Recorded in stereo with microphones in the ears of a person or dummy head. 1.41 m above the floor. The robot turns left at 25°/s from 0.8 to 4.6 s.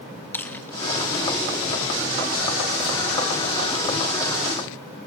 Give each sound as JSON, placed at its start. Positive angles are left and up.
{"t": 0.3, "sound": "chewing", "side_deg": 10, "distance_m": 1.1}